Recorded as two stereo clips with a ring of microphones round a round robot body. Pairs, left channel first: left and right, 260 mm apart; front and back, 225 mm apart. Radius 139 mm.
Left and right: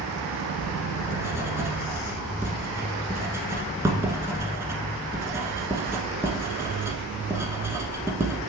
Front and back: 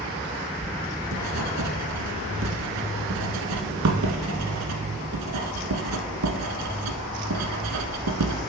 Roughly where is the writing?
Behind.